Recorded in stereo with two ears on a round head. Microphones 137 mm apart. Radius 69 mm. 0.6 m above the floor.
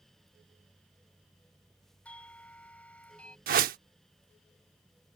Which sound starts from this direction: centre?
A doorbell, at 2.0 s.